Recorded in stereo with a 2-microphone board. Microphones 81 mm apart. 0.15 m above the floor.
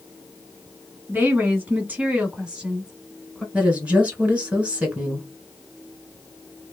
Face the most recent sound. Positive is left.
turn(degrees=-15)  # may be behind; listen again after turning